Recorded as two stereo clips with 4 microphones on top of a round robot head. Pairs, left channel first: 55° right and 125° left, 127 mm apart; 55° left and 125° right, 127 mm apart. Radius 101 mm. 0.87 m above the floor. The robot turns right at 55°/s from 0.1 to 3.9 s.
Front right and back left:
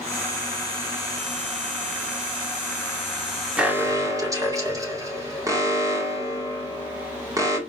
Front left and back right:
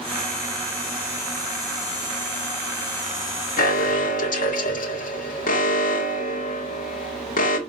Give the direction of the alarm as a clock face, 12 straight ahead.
11 o'clock.